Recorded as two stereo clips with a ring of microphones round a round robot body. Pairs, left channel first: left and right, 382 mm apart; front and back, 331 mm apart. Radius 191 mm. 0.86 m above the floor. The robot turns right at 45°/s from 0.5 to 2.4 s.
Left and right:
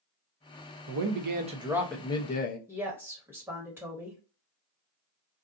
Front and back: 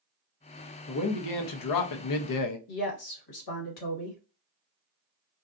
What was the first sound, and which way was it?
A man speaking, 45° right.